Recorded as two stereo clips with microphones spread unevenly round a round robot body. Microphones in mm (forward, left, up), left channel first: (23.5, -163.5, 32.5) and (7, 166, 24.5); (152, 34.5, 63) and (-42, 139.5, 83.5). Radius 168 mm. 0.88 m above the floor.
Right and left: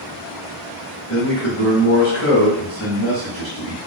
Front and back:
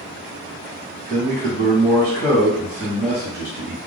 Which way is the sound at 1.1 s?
155° right.